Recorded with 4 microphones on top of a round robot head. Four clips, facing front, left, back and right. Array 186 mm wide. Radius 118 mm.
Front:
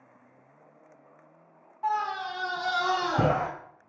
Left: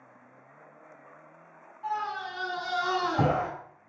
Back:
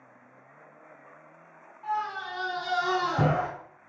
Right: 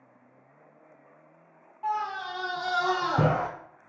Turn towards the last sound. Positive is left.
turn(degrees=-90)